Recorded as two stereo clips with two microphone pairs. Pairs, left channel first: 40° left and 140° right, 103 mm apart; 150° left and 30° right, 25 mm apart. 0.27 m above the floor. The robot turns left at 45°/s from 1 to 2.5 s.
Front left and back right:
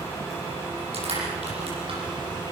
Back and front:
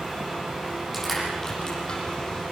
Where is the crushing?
125° right, 8 m; by 2.0 s 170° right, 8 m.